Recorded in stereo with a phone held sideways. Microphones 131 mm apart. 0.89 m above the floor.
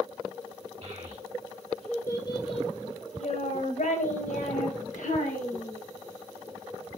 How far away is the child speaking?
About 1.4 m.